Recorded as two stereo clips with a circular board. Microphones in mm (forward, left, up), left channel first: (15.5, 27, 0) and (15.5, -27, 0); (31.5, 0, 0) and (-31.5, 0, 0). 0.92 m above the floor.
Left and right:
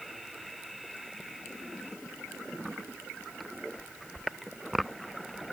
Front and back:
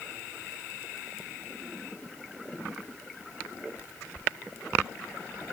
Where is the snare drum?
I don't hear a snare drum.